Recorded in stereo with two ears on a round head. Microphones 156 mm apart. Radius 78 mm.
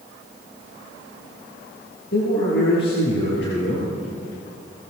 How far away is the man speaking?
About 8 m.